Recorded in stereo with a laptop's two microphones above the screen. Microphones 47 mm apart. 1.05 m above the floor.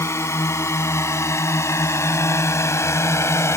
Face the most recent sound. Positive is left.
turn(degrees=70)  # may be behind; listen again after turning